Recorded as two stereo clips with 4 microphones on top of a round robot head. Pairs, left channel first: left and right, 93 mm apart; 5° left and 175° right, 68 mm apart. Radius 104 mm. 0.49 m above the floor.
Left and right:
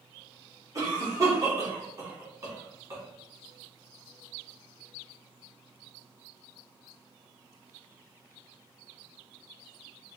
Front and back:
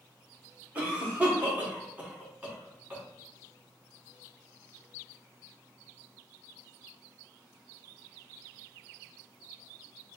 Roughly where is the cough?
Behind right.